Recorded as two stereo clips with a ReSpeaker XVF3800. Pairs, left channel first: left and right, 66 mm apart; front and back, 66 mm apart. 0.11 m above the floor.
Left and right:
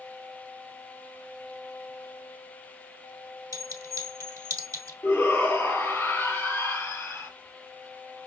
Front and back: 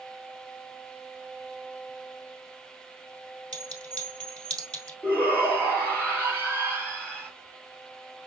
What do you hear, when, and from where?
3.5 s a clink: 70° right, 2.0 m
5.0 s a shout: 55° left, 1.9 m